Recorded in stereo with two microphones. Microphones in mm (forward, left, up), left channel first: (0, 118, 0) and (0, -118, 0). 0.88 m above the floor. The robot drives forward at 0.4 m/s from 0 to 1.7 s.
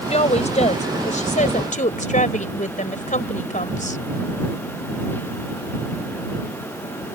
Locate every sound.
0.1 s a woman speaking: 30° left (ahead or behind); by 4.0 s 35° left (ahead or behind)